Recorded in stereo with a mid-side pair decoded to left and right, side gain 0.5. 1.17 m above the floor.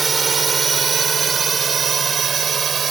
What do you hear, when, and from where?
0.0 s a drone: 30° right; by 2.9 s 40° right